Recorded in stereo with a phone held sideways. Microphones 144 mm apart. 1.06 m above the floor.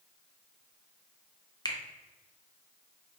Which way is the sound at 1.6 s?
30° left (ahead or behind).